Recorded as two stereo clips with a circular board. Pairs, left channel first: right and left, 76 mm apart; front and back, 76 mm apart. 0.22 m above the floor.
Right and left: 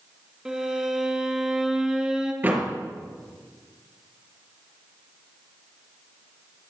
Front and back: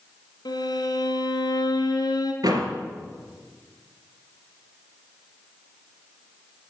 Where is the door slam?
150° left, 3.5 m.